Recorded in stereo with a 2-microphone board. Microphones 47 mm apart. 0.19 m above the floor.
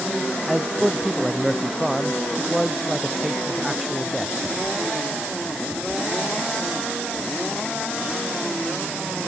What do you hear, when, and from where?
0.5 s a man speaking: centre (ahead or behind)